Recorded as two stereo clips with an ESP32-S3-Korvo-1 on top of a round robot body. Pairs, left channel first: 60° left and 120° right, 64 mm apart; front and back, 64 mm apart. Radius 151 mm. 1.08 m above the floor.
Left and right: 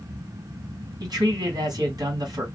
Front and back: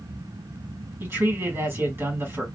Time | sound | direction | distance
1.0 | a man speaking | 125° right | 1.9 m